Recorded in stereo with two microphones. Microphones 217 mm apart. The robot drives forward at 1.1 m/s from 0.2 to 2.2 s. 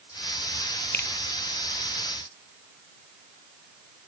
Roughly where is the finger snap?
Left.